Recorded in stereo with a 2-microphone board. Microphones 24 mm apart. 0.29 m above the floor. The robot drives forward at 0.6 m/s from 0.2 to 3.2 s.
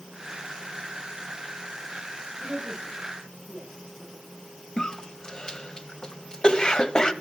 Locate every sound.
2.4 s a woman speaking: 85° right, 9.5 m
4.8 s a cough: 30° left (ahead or behind), 1.2 m